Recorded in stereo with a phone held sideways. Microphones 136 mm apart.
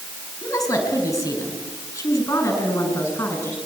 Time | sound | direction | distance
0.4 | a woman speaking | 20° left (ahead or behind) | 5.5 m